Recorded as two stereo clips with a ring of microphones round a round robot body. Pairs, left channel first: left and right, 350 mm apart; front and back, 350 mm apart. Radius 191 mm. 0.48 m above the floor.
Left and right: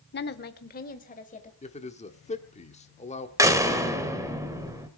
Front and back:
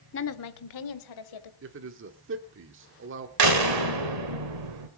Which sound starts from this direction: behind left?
A man speaking, at 1.6 s.